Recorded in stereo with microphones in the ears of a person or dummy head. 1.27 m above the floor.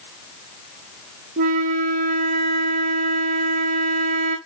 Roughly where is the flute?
Right.